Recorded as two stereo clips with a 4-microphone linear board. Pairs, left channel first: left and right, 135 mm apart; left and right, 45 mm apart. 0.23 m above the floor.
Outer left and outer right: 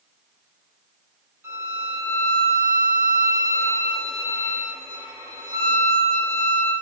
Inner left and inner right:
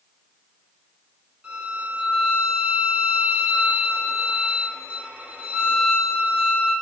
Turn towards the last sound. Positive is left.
turn(degrees=-20)  # may be behind; listen again after turning